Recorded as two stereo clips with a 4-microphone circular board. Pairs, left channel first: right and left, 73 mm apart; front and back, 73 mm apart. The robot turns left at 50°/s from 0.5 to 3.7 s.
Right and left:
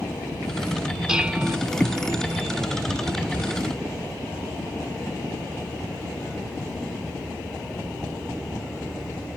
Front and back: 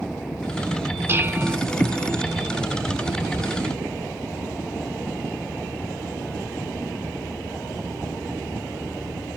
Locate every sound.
1.1 s dishes clattering: 160° left; by 1.6 s 135° left